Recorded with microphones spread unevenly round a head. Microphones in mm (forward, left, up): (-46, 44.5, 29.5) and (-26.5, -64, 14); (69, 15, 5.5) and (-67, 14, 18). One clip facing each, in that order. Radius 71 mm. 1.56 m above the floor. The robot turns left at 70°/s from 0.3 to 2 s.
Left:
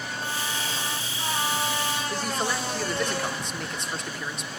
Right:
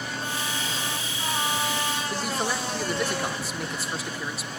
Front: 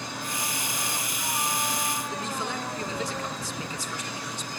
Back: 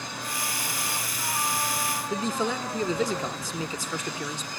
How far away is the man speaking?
About 1.8 m.